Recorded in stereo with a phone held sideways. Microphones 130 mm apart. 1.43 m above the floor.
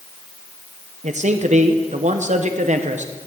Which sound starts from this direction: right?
A man speaking, at 1.0 s.